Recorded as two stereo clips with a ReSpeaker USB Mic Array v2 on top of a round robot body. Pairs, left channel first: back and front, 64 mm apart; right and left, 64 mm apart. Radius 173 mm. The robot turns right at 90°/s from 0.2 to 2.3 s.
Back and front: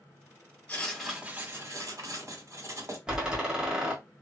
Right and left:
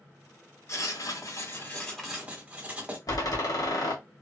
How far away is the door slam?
About 1.7 m.